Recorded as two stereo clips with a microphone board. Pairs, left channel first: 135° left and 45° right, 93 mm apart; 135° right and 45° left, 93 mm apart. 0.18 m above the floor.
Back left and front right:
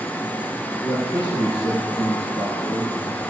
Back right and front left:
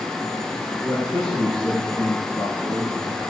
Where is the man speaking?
160° left, 6.5 m.